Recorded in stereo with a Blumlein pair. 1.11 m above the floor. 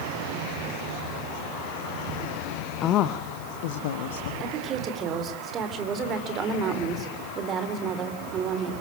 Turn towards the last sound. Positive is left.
turn(degrees=-25)